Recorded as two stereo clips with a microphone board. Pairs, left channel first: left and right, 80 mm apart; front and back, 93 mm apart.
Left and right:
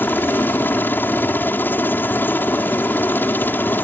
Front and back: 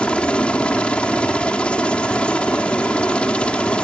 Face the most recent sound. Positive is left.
turn(degrees=65)